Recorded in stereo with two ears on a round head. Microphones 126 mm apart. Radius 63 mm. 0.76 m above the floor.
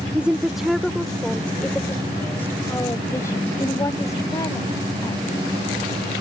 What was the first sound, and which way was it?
A woman speaking, 10° right (ahead or behind).